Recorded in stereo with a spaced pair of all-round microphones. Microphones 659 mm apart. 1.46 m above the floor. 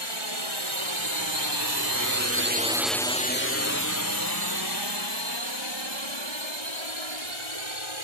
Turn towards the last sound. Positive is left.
turn(degrees=45)  # may be behind; listen again after turning